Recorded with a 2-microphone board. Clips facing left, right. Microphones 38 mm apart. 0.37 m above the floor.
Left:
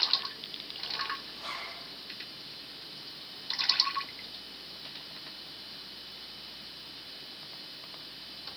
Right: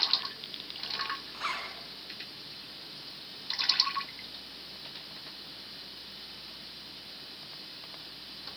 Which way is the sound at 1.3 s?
75° right (ahead or behind).